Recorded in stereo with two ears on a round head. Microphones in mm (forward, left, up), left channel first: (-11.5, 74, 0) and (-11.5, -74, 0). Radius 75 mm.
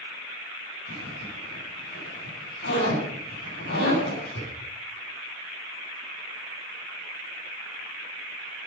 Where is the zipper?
75° left (ahead or behind), 8.5 m.